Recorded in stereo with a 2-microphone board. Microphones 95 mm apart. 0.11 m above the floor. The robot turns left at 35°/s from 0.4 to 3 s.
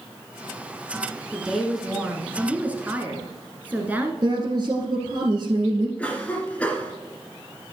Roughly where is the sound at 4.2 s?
Right.